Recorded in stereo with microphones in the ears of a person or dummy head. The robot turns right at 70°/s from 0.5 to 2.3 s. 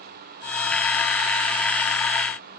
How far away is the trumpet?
No trumpet in this recording.